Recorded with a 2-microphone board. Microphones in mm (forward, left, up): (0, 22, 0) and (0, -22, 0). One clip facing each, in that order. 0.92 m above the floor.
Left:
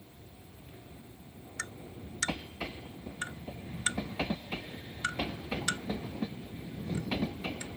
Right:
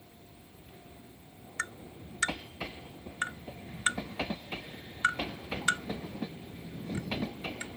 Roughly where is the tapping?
Right.